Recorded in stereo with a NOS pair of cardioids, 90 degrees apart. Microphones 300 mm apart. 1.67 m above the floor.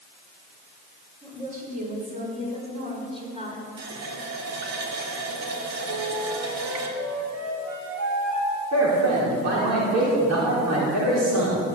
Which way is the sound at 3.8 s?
65° right.